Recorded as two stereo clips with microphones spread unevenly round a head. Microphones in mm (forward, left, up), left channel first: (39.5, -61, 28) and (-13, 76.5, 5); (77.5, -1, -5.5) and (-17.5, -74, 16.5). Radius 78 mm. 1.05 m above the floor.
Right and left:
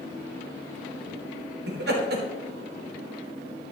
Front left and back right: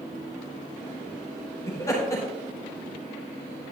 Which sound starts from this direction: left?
Laughter, at 1.7 s.